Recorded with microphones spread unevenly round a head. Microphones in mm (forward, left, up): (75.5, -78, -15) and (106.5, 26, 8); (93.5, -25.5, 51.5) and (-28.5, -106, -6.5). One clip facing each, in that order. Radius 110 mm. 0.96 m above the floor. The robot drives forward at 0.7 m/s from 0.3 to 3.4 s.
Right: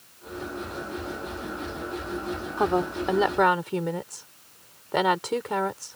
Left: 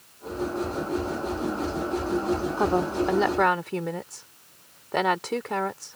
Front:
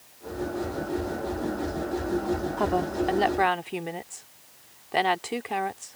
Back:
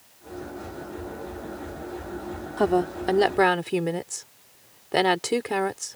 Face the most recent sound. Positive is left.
turn(degrees=165)